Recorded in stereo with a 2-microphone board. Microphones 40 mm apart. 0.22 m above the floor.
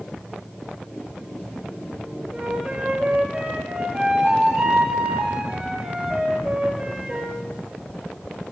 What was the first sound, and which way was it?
A flute, 25° right (ahead or behind).